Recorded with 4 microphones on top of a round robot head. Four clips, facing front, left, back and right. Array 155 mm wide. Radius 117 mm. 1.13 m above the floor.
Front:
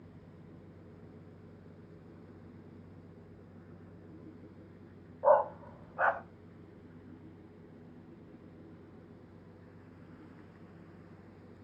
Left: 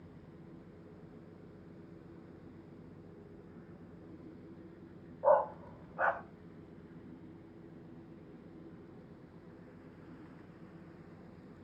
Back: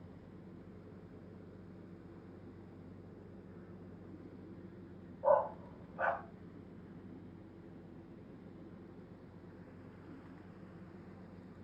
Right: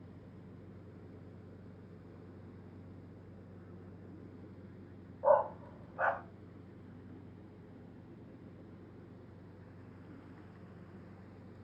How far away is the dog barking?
About 0.6 m.